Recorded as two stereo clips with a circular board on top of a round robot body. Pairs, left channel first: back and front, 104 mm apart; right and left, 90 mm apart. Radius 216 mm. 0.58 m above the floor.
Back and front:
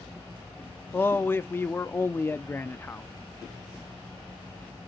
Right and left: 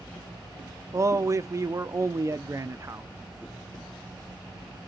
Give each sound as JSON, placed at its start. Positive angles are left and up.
{"t": 0.9, "sound": "a man speaking", "azimuth_deg": 120, "distance_m": 0.7}